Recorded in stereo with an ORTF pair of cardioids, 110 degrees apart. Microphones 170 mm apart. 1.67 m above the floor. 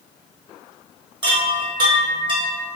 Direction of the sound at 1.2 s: 30° right.